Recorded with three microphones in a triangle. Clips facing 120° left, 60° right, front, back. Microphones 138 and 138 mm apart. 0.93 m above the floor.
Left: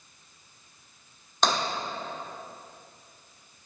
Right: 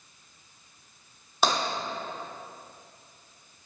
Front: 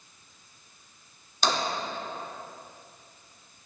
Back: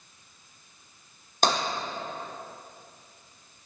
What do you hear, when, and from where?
1.4 s tapping: 145° right, 1.4 m